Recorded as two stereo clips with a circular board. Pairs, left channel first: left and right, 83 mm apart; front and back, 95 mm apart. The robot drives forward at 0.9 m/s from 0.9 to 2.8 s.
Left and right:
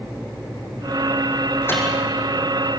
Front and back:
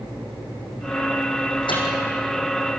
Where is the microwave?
30° left, 6 m.